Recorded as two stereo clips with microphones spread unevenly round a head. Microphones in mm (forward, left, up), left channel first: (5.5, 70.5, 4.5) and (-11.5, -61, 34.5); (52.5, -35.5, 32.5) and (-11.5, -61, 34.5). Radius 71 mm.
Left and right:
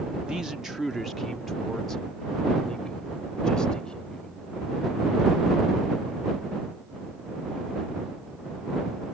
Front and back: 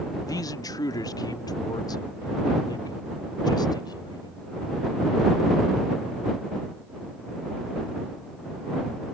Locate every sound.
0.3 s a man speaking: 10° right; by 4.4 s 5° right